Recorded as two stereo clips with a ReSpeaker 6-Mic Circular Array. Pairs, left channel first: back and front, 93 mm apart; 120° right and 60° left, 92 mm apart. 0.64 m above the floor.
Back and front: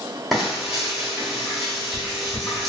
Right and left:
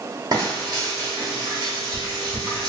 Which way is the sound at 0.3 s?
90° left.